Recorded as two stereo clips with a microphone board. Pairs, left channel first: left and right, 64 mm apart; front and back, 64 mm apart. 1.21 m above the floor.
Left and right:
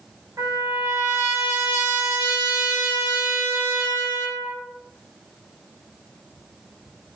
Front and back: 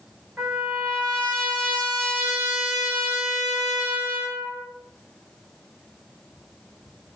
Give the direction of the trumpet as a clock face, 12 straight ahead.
4 o'clock.